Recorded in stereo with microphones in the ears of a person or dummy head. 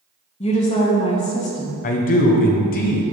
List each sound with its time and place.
0.4 s a woman speaking: 30° left (ahead or behind), 1.2 m
1.8 s a man speaking: 40° left (ahead or behind), 0.9 m